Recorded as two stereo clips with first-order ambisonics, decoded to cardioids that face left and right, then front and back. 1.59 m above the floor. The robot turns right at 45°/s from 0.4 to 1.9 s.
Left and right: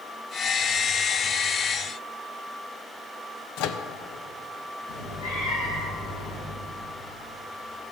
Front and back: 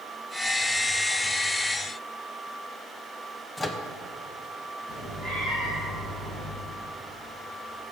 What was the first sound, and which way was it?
A microwave, 80° left.